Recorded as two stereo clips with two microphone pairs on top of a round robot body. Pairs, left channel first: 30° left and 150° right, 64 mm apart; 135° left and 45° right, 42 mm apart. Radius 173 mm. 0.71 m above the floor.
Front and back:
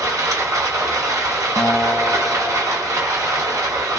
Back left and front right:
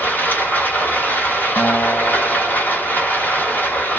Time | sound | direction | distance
0.0 | running water | straight behind | 2 m
1.6 | a guitar | 80° left | 0.7 m